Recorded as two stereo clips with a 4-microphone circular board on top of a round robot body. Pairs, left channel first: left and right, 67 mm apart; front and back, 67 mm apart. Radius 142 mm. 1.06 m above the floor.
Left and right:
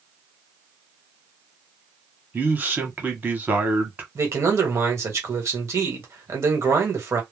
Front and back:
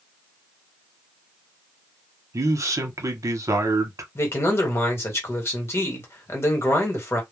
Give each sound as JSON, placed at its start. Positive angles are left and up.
{"t": 2.3, "sound": "a man speaking", "azimuth_deg": -150, "distance_m": 1.1}
{"t": 4.2, "sound": "a man speaking", "azimuth_deg": -50, "distance_m": 1.4}